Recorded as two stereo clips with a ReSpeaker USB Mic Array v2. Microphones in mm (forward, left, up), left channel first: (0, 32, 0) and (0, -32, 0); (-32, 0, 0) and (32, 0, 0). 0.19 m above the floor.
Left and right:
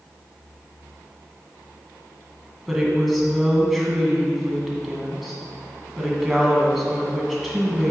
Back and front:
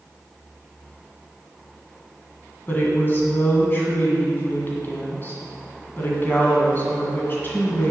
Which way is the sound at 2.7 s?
Straight behind.